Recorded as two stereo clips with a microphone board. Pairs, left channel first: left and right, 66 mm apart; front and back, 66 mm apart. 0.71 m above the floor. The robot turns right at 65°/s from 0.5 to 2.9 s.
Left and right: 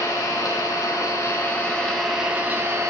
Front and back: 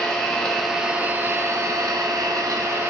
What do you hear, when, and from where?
0.0 s an engine running: 80° left, 0.8 m; by 2.9 s 125° right, 0.8 m